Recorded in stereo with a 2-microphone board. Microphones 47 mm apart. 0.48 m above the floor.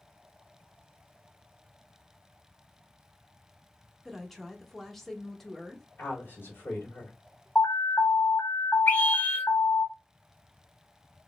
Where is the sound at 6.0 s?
55° left (ahead or behind), 1.9 m.